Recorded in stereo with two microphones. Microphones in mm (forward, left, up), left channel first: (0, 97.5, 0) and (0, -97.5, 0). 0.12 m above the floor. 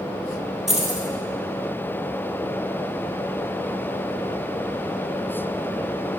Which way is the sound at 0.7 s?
Centre (ahead or behind).